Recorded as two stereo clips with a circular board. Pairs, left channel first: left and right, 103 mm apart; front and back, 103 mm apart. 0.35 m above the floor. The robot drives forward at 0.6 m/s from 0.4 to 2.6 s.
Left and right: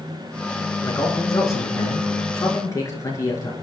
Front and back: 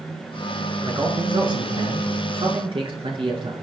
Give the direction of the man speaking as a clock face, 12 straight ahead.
7 o'clock.